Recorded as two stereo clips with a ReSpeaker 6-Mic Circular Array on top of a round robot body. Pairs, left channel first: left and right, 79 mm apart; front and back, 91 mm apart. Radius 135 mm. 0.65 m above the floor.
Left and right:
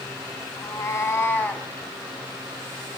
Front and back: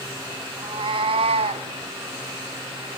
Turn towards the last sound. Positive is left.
turn(degrees=170)